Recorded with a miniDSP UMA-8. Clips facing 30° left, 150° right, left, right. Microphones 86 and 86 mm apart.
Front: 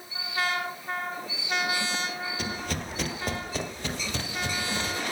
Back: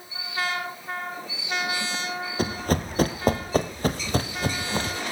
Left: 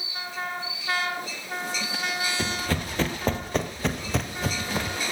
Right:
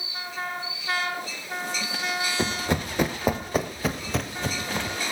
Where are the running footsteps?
145° right, 1.7 m; by 5.0 s 175° left, 2.5 m.